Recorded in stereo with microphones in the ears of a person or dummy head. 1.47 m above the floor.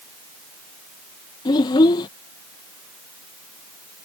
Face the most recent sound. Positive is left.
turn(degrees=30)  # may be behind; listen again after turning